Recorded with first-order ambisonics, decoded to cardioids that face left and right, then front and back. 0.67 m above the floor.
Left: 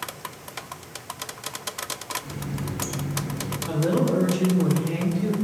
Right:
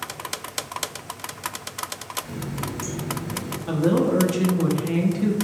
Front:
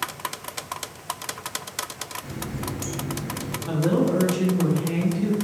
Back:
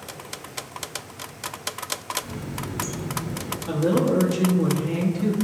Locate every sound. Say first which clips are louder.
2.2 s a running tap: right 2 dB, front 1 dB; 10° right, 1.9 m
3.7 s a woman speaking: right 3 dB, back 1 dB; 90° right, 0.6 m